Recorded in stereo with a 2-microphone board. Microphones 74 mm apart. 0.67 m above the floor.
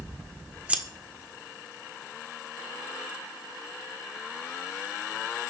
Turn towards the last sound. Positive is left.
turn(degrees=-15)  # may be behind; listen again after turning